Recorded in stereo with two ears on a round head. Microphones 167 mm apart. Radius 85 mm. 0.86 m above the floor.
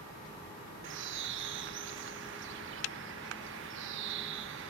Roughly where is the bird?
Right.